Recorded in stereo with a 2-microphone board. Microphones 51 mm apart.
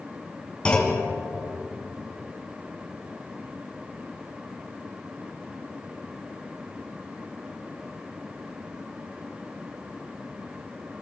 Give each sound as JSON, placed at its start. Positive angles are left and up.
{"t": 0.7, "sound": "a clunk", "side_deg": 20, "distance_m": 3.0}